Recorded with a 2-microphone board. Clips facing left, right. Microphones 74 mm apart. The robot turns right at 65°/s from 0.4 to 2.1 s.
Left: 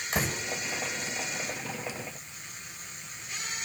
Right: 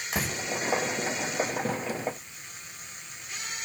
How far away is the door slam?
About 7.5 m.